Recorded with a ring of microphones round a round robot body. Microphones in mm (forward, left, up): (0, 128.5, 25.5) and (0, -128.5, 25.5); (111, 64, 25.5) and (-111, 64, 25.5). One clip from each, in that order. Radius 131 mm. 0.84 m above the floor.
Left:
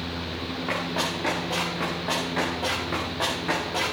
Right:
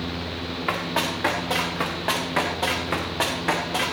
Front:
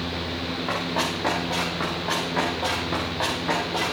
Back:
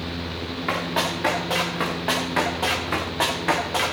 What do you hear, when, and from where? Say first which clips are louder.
0.7 s running footsteps: right 3 dB, back 3 dB; 125° right, 4.5 m; by 3.9 s 145° right, 3.5 m